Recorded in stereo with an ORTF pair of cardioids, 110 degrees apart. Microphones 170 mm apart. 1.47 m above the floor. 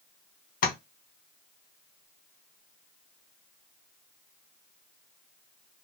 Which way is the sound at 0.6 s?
60° left.